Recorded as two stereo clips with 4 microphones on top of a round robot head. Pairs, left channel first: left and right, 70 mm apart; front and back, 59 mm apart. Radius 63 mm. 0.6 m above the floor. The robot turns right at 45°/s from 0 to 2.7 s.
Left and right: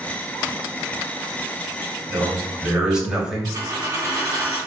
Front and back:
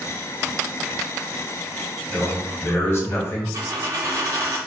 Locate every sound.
2.1 s a man speaking: 40° right, 1.0 m; by 3.4 s 15° right, 1.0 m
3.5 s a dropped coin: 140° right, 0.7 m